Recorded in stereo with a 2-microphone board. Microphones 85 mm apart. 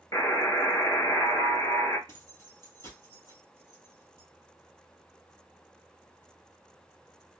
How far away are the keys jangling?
About 2 m.